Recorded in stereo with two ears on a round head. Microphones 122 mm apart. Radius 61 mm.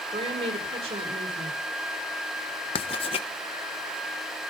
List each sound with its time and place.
0.1 s a woman speaking: 45° right (ahead or behind), 4.5 m
2.8 s writing: 40° left (ahead or behind), 1.0 m